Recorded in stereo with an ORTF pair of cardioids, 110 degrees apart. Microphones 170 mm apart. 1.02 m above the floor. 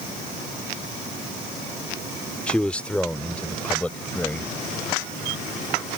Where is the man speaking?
5° left; by 4.5 s 10° left.